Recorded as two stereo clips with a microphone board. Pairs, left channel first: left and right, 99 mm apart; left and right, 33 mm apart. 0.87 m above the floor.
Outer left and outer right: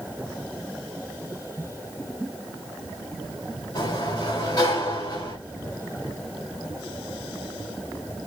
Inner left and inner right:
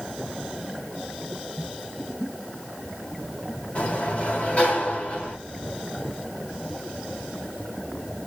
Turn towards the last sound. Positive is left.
turn(degrees=40)  # may be behind; listen again after turning